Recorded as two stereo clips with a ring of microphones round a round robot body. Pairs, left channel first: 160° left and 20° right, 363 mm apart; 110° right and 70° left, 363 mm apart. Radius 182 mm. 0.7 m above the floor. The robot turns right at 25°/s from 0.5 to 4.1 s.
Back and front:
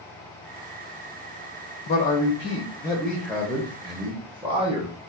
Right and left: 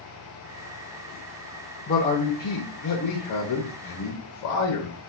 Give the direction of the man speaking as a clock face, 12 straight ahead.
5 o'clock.